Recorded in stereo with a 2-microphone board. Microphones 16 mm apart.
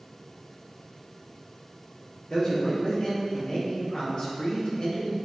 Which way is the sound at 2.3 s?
50° left (ahead or behind).